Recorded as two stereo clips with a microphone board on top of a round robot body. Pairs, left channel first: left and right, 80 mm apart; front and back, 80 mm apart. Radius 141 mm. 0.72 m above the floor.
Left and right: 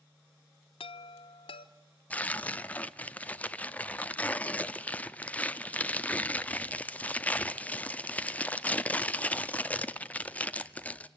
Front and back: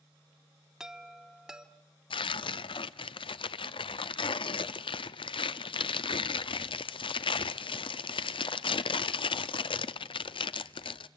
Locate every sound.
0.8 s a chime: 95° left, 0.8 m
2.1 s tearing paper: 15° left, 0.6 m